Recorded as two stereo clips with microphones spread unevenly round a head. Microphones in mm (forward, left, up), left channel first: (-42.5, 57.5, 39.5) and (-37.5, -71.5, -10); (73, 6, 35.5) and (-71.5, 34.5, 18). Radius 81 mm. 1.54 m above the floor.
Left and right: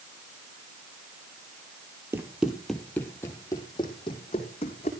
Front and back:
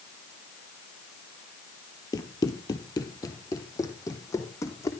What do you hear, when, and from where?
2.1 s running footsteps: 10° left, 1.7 m; by 4.9 s 55° left, 4 m